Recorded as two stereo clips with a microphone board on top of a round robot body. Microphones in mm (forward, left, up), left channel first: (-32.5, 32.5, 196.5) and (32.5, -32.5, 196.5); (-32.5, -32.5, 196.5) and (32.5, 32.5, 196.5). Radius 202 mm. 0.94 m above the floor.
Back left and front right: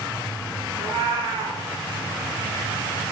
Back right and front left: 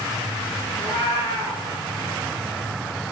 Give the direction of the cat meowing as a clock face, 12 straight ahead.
3 o'clock.